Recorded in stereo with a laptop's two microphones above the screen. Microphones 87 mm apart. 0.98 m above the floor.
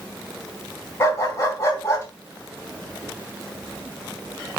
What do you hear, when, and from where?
1.0 s a dog barking: 30° left (ahead or behind), 4 m